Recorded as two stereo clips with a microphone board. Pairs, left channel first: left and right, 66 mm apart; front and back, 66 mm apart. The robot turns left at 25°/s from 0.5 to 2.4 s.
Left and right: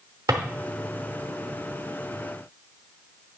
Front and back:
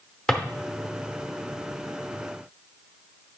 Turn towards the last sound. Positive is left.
turn(degrees=-130)